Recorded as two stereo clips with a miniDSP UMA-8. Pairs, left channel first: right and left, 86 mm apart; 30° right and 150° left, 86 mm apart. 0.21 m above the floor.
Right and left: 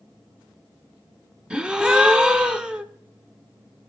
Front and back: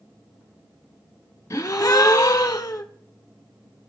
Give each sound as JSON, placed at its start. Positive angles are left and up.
{"t": 1.5, "sound": "a gasp", "azimuth_deg": 10, "distance_m": 0.5}